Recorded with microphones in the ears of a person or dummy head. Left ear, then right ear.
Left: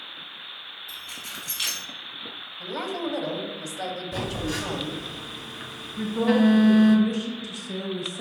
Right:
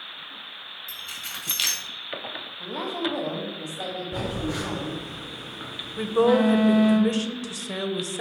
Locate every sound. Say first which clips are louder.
0.9 s keys jangling: right 3 dB; 25° right (ahead or behind), 2 m
2.6 s a woman speaking: right 1 dB; 20° left (ahead or behind), 1.2 m
4.1 s a phone buzzing: even; 30° left (ahead or behind), 1.6 m
6.0 s a woman speaking: right 4 dB; 50° right (ahead or behind), 0.7 m